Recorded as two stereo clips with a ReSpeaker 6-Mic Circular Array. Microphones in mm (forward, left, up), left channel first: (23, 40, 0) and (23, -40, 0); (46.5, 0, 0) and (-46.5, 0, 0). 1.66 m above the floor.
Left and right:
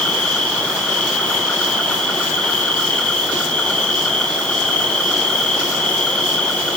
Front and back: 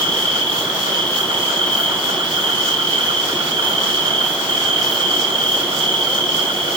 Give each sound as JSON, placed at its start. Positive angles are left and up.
{"t": 0.0, "sound": "an insect", "azimuth_deg": 165, "distance_m": 1.6}